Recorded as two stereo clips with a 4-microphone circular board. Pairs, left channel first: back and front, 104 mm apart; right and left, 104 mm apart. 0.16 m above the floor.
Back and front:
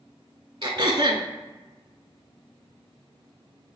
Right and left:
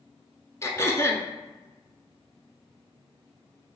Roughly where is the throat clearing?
Ahead right.